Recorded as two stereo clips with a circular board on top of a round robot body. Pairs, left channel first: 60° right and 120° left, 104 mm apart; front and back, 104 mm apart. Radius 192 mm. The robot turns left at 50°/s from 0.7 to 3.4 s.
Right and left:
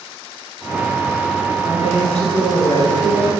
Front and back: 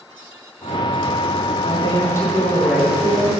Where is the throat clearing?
No throat clearing in this recording.